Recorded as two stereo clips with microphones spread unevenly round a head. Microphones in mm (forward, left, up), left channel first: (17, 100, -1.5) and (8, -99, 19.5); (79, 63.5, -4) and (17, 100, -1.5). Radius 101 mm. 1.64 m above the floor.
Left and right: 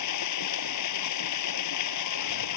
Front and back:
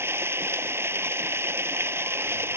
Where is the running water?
95° left.